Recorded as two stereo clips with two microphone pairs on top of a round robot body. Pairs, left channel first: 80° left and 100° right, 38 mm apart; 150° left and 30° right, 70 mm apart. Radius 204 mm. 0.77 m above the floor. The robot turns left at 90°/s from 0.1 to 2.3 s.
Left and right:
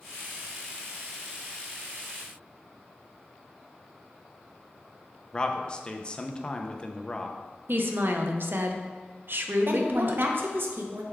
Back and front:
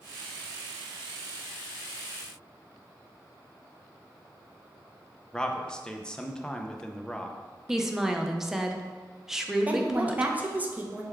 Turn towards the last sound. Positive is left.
turn(degrees=-95)